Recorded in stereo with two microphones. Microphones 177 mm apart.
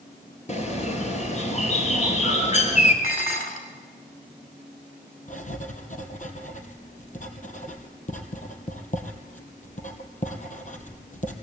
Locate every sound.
0.5 s a bird: 40° left (ahead or behind), 3.5 m
3.0 s dishes clattering: 50° left (ahead or behind), 3 m
5.3 s writing: 45° left (ahead or behind), 2.5 m